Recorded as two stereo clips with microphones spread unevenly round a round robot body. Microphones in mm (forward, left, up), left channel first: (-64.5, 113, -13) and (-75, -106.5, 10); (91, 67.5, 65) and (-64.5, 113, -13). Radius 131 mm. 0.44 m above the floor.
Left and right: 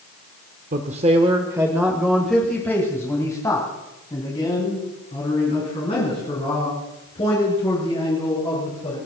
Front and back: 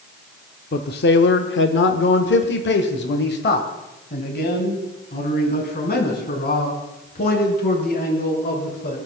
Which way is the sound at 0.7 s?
60° right.